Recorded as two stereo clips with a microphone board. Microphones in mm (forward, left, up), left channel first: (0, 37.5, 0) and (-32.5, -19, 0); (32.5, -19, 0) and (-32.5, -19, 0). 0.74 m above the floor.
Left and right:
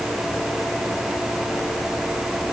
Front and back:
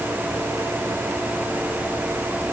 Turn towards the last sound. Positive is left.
No sound to turn to.